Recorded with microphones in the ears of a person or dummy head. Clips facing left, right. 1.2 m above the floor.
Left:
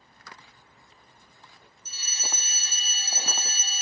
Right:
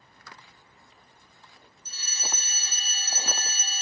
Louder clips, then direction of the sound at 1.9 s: Right 1 dB; 20° left (ahead or behind).